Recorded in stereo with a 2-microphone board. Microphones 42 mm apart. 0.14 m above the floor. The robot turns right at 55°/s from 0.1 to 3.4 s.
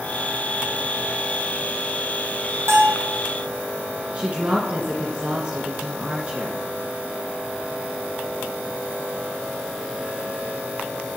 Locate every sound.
2.7 s a bell: 70° right (ahead or behind), 3 m; by 3.1 s 65° right (ahead or behind), 3 m
4.1 s a woman speaking: 25° right (ahead or behind), 1.7 m